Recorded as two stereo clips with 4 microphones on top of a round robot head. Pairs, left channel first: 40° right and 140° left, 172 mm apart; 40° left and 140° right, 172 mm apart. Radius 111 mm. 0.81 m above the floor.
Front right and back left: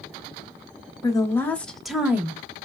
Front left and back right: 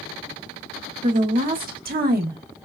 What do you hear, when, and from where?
1.0 s a woman speaking: 105° right, 1.5 m; by 2.4 s 150° right, 1.5 m